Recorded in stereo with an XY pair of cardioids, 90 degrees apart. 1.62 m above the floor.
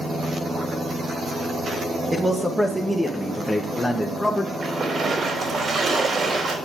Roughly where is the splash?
Ahead right.